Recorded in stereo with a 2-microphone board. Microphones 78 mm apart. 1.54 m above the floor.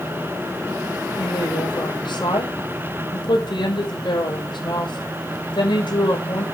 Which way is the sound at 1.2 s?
80° left.